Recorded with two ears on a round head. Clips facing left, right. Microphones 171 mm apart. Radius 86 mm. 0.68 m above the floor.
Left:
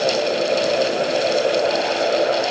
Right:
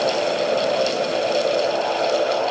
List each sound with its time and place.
Only background noise.